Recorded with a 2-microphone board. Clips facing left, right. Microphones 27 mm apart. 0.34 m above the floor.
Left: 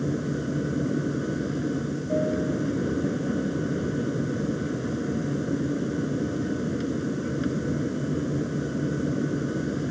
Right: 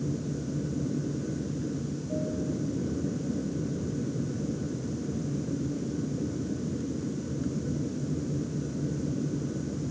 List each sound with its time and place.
0.0 s an aircraft: 60° left (ahead or behind)